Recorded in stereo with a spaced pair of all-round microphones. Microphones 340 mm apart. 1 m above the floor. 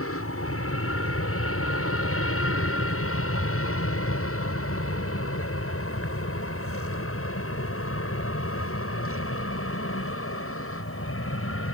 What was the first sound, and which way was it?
An aircraft, 40° left (ahead or behind).